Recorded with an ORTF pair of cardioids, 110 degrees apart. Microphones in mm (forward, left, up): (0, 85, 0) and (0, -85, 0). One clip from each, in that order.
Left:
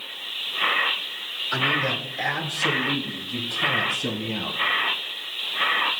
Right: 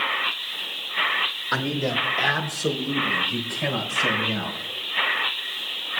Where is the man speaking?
50° right, 2.5 m; by 4.6 s 80° right, 6 m.